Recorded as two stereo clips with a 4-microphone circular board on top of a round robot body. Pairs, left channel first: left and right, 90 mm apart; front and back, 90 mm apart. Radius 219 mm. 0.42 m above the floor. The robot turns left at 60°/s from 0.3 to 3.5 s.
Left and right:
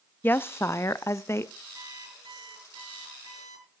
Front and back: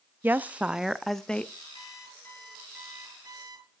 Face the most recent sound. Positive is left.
turn(degrees=-145)